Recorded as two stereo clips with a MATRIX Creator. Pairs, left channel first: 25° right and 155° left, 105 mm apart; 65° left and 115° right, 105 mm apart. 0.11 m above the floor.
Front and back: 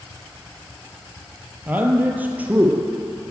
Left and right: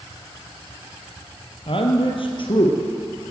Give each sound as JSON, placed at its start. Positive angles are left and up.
{"t": 1.7, "sound": "a man speaking", "azimuth_deg": 85, "distance_m": 2.5}